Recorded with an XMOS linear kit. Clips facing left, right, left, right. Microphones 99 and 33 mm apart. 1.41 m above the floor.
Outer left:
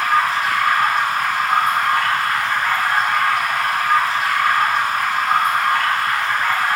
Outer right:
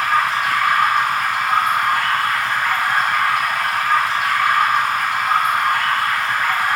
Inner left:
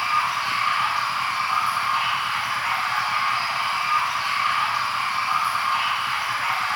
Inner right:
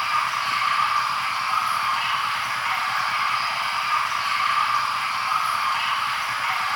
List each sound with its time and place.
0.0 s running water: 5° left (ahead or behind), 2.5 m